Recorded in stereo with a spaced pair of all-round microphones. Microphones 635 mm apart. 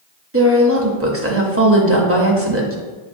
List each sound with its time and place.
0.3 s a woman speaking: 20° right (ahead or behind), 0.8 m